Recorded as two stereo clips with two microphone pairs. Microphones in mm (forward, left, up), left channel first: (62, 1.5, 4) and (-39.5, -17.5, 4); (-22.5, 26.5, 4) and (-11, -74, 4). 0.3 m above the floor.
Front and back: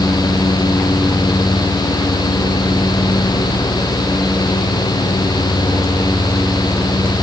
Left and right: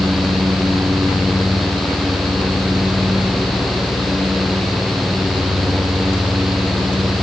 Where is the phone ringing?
No phone ringing in this recording.